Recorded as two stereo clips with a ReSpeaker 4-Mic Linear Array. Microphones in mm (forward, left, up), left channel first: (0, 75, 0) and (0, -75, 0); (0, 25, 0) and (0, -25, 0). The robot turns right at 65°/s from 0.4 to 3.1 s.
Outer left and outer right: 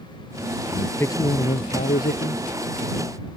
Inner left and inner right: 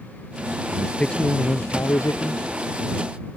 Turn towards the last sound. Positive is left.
turn(degrees=150)